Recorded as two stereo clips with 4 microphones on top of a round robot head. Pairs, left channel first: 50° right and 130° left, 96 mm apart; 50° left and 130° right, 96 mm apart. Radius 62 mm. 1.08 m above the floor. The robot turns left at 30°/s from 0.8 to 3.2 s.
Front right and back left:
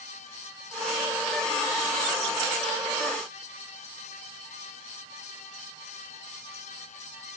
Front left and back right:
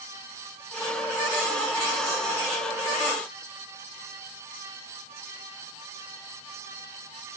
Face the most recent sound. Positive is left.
No sound to turn to.